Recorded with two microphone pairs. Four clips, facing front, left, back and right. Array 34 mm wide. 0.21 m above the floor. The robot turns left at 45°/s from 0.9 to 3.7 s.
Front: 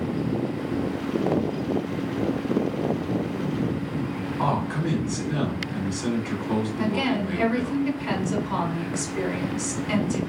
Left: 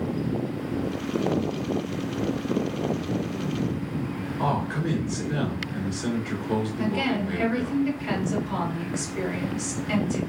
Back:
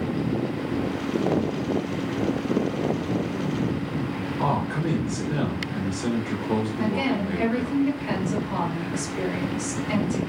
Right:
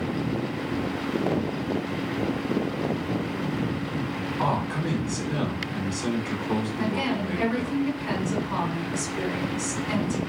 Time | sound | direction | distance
4.4 | a man speaking | 45° right | 2.0 m
6.8 | a woman speaking | 20° right | 1.6 m